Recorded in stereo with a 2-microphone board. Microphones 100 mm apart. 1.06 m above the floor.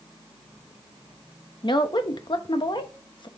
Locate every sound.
1.6 s a woman speaking: 50° left (ahead or behind), 1.0 m